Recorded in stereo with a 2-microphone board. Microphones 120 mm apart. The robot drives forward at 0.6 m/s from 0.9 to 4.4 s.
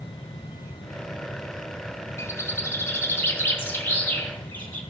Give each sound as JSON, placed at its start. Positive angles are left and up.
{"t": 2.2, "sound": "a bird", "side_deg": 25, "distance_m": 1.5}